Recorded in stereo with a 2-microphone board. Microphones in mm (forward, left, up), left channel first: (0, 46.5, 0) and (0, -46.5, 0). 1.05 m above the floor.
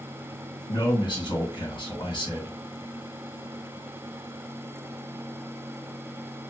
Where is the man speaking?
60° left (ahead or behind), 1.5 m.